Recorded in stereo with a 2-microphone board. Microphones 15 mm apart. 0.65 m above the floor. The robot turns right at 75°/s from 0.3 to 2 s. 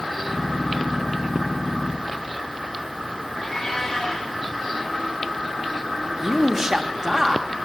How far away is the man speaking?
About 0.8 m.